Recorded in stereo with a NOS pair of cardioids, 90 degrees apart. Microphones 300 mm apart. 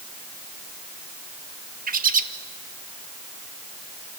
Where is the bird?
30° right, 1.1 m.